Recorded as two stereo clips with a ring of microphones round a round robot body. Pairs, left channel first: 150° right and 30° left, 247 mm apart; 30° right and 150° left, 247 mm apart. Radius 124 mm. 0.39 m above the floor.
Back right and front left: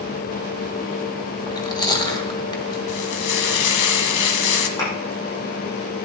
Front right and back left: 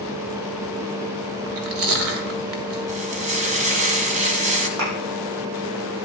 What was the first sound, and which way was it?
Chewing, 140° left.